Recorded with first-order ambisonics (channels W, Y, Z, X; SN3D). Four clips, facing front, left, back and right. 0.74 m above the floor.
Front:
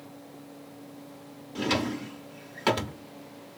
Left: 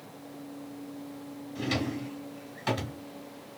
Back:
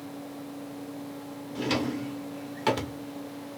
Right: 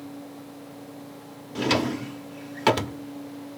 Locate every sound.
1.6 s a drawer: 85° right, 0.6 m